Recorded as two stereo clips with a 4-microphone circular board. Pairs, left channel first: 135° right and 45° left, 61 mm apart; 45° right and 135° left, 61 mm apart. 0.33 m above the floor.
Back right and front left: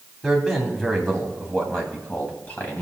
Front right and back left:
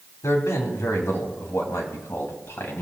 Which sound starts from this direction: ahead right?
A man speaking, at 0.2 s.